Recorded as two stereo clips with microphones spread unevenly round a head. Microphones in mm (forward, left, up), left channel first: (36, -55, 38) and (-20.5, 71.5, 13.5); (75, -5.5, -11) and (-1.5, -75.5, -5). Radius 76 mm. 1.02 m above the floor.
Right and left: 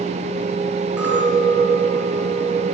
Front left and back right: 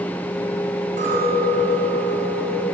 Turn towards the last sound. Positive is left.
turn(degrees=-160)